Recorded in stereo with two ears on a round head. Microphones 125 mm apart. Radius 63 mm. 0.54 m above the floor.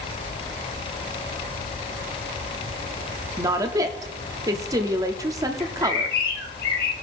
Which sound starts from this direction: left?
A bird, at 5.6 s.